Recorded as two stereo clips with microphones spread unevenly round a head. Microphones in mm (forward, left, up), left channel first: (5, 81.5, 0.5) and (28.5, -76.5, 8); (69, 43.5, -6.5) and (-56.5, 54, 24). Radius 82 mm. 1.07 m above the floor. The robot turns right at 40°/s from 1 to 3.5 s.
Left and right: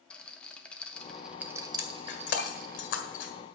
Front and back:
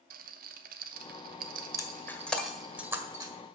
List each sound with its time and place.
0.1 s a rattle: straight behind, 0.9 m; by 2.8 s 110° right, 0.9 m
1.8 s breaking glass: 60° left, 1.7 m; by 3.3 s 125° left, 1.7 m